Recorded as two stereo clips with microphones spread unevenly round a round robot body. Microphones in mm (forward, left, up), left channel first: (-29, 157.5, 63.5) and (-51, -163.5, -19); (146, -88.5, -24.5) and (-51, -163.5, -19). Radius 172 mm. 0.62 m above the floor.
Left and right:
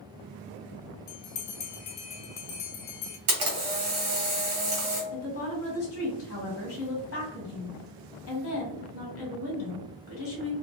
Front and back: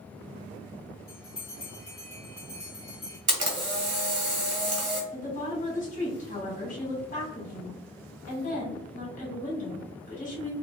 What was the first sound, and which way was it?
A bell, 95° left.